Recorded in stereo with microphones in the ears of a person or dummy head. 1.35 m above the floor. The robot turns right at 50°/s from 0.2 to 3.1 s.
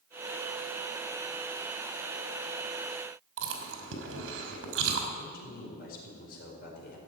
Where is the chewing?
65° right (ahead or behind), 2.5 m.